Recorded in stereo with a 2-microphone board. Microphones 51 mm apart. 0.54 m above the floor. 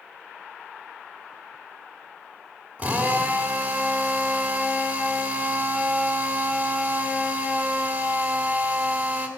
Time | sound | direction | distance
2.8 | a drill | 30° right (ahead or behind) | 2 m